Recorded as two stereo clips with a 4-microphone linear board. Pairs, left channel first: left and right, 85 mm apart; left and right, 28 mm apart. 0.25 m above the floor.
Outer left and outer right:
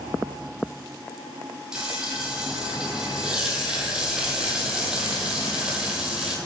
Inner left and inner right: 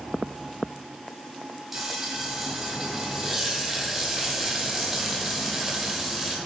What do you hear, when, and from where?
1.7 s frying: 10° right (ahead or behind), 1.6 m